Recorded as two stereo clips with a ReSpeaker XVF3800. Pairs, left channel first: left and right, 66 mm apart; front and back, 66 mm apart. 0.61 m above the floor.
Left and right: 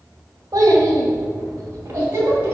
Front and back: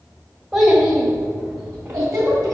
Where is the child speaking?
115° right, 1.7 m; by 2.5 s 150° right, 2.5 m.